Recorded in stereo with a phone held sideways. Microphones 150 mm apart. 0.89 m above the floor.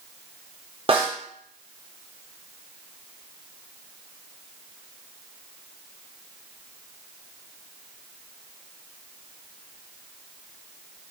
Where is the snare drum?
40° right (ahead or behind), 3 m.